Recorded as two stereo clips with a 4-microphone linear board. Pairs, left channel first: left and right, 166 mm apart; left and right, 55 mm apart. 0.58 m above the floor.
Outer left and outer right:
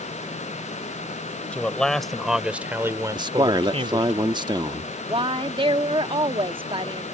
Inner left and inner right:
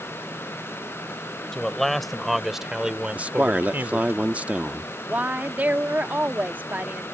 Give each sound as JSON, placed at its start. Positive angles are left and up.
{"t": 1.5, "sound": "a man speaking", "side_deg": 10}
{"t": 3.1, "sound": "a man speaking", "side_deg": -25}
{"t": 5.1, "sound": "a woman speaking", "side_deg": -30}